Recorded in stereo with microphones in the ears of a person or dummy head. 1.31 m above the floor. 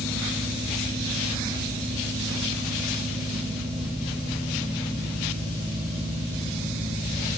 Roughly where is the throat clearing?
I don't hear throat clearing.